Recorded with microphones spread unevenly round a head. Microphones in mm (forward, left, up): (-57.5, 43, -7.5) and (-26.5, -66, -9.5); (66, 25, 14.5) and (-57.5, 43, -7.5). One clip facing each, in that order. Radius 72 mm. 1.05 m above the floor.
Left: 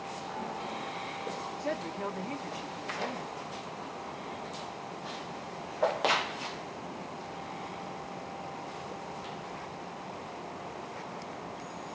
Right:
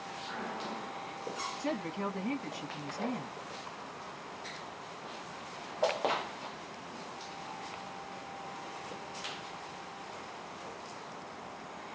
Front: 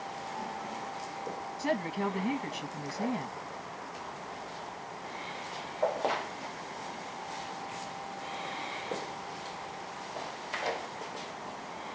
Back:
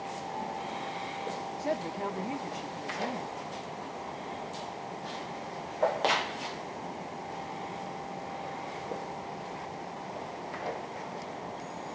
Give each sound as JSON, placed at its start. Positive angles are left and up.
{"t": 1.6, "sound": "a woman speaking", "azimuth_deg": -25, "distance_m": 0.9}